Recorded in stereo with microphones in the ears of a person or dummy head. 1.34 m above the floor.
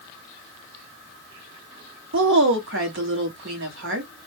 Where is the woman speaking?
60° right (ahead or behind), 1.1 m.